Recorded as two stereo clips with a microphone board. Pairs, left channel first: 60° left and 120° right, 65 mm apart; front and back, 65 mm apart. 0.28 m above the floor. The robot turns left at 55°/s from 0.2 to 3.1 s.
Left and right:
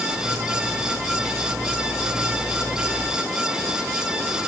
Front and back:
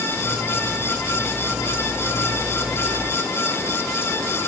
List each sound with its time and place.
Only background noise.